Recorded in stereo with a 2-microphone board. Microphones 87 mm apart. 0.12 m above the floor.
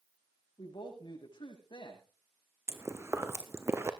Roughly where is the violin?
I don't hear a violin.